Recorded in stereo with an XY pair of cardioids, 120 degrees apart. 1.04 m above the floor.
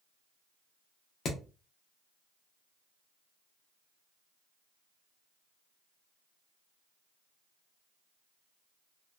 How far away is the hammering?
About 0.7 m.